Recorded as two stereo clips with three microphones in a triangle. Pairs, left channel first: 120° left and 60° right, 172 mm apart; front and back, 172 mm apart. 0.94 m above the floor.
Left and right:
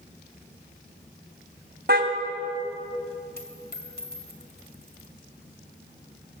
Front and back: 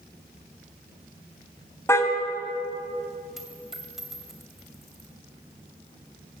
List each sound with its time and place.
1.9 s a car horn: 75° right, 3 m
3.4 s a dropped coin: 90° left, 2.5 m